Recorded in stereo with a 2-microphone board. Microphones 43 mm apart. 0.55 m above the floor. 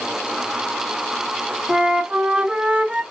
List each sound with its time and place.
1.7 s a flute: 25° right (ahead or behind), 0.8 m